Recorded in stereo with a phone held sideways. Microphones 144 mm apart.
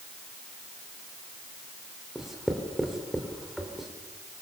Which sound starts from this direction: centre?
Writing, at 2.1 s.